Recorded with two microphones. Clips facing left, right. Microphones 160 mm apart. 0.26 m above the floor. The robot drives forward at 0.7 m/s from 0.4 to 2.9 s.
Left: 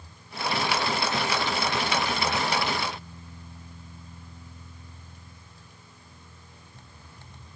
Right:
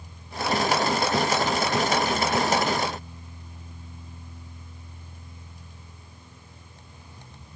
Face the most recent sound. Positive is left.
No sound to turn to.